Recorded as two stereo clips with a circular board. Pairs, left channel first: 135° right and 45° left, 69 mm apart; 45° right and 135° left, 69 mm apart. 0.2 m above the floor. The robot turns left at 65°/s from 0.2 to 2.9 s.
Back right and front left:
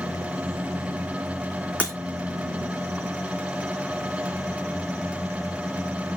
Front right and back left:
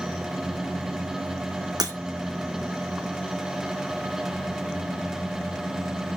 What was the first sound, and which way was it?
Breaking glass, 155° left.